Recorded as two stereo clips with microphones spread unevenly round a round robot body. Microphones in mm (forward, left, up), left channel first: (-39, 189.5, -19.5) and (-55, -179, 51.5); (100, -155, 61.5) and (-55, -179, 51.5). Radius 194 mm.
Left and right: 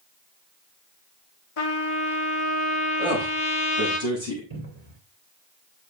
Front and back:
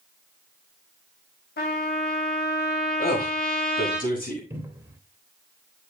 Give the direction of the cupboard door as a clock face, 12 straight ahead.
3 o'clock.